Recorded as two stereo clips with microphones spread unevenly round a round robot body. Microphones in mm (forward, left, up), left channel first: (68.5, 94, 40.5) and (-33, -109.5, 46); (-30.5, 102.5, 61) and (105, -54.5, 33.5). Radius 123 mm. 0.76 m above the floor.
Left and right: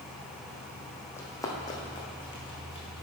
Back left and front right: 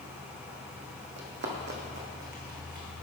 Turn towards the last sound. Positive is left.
turn(degrees=0)